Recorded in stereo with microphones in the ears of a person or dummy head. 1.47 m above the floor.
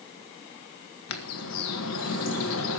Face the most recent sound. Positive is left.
turn(degrees=85)